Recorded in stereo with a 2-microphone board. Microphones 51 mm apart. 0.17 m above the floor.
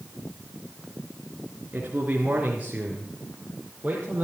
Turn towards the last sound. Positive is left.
turn(degrees=-30)  # may be behind; listen again after turning